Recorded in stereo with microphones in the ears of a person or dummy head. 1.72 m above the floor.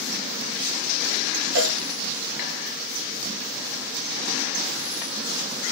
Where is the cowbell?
55° right (ahead or behind), 2.5 m.